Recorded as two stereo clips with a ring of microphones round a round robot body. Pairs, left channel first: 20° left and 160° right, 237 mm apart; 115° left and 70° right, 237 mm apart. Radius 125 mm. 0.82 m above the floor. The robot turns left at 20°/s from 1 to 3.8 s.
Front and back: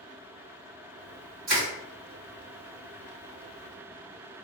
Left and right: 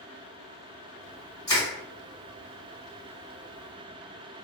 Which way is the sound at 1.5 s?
175° right.